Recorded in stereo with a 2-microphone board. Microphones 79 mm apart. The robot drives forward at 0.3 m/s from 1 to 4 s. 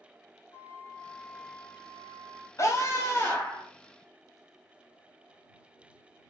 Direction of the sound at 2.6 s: 40° left (ahead or behind).